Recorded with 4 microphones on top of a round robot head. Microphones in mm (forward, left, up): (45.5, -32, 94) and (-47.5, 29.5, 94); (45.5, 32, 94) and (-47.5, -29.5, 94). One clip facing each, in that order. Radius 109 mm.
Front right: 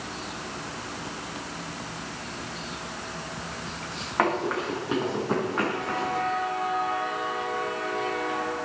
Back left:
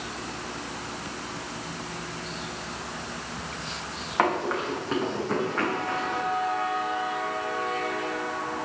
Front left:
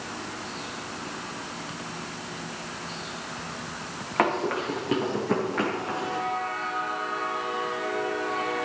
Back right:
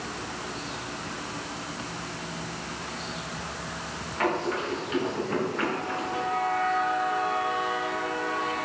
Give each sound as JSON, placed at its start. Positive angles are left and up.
{"t": 4.2, "sound": "running footsteps", "azimuth_deg": 55, "distance_m": 4.5}